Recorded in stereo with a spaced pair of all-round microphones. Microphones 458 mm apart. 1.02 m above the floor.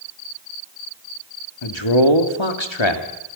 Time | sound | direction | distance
1.6 | a man speaking | 80° left | 2.5 m